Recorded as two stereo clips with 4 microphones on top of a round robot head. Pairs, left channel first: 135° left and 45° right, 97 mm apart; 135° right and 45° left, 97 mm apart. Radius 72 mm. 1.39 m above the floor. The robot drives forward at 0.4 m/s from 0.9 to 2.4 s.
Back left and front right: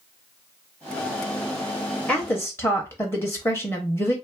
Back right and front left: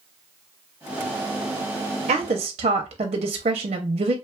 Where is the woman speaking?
55° left, 0.6 m; by 4.2 s 70° left, 0.6 m.